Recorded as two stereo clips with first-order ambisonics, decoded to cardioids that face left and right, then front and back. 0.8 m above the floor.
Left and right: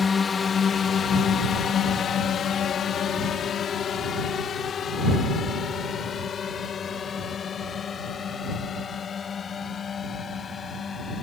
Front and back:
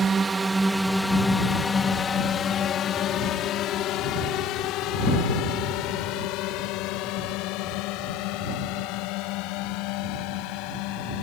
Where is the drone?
140° left; by 11.2 s 20° left.